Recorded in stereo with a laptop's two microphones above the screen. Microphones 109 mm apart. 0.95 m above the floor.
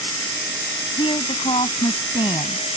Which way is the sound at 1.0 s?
55° left (ahead or behind).